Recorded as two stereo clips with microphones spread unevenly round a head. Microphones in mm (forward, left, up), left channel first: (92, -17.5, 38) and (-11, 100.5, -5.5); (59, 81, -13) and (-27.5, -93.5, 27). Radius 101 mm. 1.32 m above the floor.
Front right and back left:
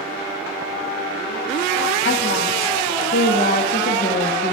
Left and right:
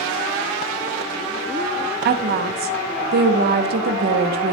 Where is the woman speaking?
85° right, 0.9 m.